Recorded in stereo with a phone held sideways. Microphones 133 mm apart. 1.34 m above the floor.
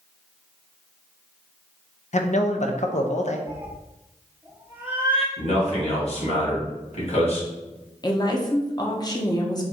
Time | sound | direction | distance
2.1 | a man speaking | 65° left (ahead or behind) | 0.6 m
3.5 | a cat meowing | 15° right (ahead or behind) | 0.7 m
5.4 | a man speaking | 55° left (ahead or behind) | 1.9 m
8.0 | a woman speaking | 30° left (ahead or behind) | 0.7 m